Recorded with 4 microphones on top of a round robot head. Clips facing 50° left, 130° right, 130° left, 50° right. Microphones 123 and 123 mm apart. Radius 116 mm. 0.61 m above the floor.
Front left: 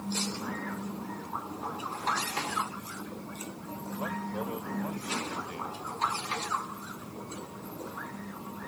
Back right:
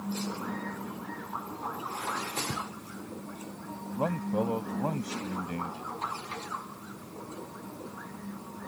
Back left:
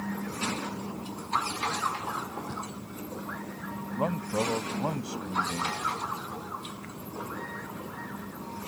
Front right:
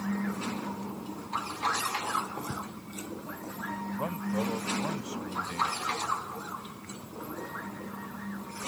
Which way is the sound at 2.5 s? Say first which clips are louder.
Front left 3 dB, even; 130° right.